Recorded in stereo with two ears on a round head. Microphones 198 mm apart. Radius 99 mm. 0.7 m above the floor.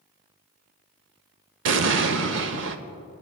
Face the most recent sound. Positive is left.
turn(degrees=-60)  # may be behind; listen again after turning